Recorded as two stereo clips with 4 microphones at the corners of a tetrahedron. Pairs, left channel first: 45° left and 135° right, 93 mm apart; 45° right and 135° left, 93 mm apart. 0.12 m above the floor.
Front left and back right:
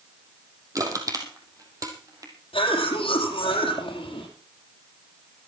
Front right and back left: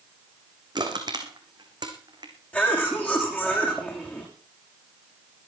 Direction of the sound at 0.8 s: 175° left.